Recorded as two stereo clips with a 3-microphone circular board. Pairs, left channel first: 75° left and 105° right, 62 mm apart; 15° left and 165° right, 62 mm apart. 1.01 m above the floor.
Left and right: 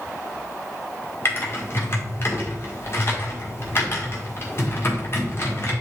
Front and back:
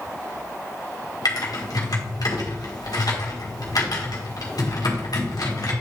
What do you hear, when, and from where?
1.2 s typing on a keyboard: 25° left, 1.8 m